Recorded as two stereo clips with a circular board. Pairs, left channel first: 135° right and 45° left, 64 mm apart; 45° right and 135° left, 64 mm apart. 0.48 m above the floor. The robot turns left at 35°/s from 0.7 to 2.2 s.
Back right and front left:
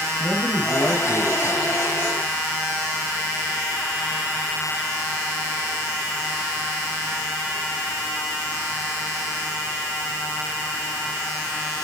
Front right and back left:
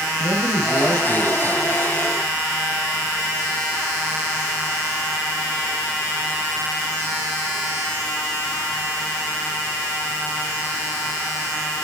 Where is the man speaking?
165° left, 7 m; by 1.8 s 125° left, 7 m.